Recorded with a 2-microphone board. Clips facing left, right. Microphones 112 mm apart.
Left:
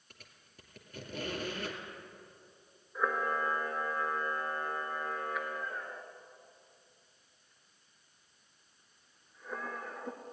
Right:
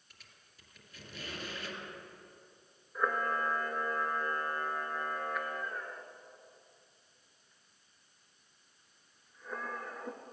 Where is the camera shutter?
Centre (ahead or behind), 1.2 m.